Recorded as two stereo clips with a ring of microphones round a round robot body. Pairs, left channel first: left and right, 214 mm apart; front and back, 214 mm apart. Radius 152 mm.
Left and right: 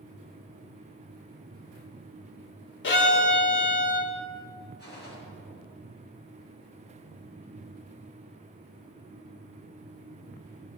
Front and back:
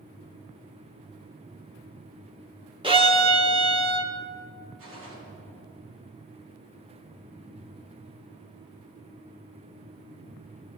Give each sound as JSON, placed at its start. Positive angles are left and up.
{"t": 2.8, "sound": "a violin", "azimuth_deg": 115, "distance_m": 1.4}
{"t": 4.8, "sound": "a gunshot", "azimuth_deg": 165, "distance_m": 3.5}